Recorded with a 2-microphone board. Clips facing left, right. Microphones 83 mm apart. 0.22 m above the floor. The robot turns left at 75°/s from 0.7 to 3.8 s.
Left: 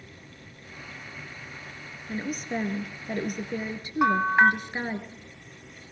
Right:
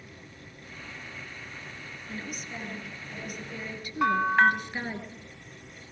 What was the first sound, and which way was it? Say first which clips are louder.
A woman speaking: left 9 dB; 155° left.